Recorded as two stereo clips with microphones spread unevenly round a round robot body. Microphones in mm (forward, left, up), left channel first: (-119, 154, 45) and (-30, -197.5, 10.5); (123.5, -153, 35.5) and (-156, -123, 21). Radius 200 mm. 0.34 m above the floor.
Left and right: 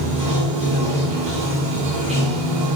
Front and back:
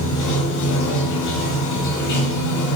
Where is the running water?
5° right, 1.2 m.